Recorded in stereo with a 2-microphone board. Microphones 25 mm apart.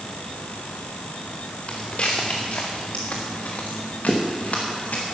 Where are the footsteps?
50° left (ahead or behind), 2.5 m; by 5.0 s 85° left, 3.5 m.